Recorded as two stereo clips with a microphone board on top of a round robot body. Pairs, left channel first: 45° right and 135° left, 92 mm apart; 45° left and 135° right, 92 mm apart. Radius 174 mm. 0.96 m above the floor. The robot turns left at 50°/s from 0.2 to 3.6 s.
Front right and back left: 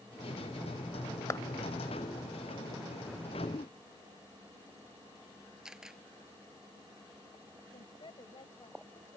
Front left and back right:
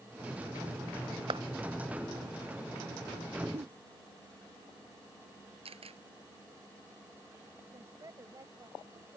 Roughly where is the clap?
Right.